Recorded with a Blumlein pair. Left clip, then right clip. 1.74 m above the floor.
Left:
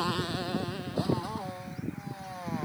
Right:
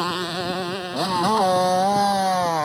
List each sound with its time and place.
0.0 s a motorcycle: 70° right; by 2.6 s 35° right